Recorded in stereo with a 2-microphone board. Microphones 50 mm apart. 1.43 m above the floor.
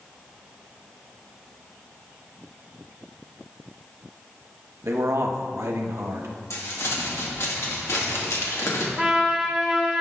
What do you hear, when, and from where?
4.8 s a man speaking: 70° right (ahead or behind), 0.9 m
6.5 s crumpling: 75° left (ahead or behind), 1.7 m
9.0 s a trumpet: 5° right (ahead or behind), 1.1 m